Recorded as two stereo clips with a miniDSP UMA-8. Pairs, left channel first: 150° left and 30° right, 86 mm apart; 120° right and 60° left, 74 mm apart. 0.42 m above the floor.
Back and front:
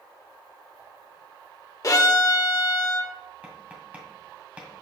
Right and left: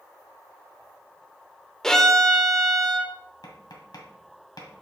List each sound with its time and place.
1.8 s a violin: 160° left, 0.7 m
3.4 s tapping: 105° right, 1.7 m